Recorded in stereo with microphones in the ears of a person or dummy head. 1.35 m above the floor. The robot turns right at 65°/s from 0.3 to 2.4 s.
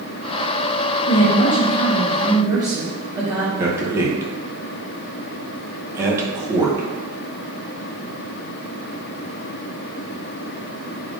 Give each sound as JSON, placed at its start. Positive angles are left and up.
{"t": 1.1, "sound": "a woman speaking", "azimuth_deg": 110, "distance_m": 0.7}
{"t": 3.6, "sound": "a man speaking", "side_deg": -20, "distance_m": 0.8}